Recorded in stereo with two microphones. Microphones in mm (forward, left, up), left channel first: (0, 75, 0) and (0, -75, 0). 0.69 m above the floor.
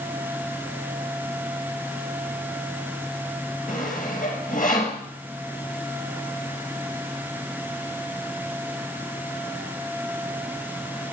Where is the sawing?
65° left (ahead or behind), 4.5 m.